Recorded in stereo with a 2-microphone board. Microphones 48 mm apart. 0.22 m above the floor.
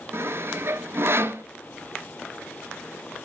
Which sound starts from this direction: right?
Sawing, at 0.1 s.